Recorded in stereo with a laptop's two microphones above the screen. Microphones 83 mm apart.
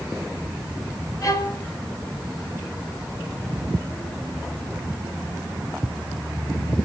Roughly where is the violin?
Left.